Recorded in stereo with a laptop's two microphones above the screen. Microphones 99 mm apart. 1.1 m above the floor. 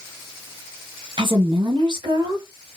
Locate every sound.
1.2 s a woman speaking: 55° right (ahead or behind), 1.1 m; by 2.8 s 45° right (ahead or behind), 1.2 m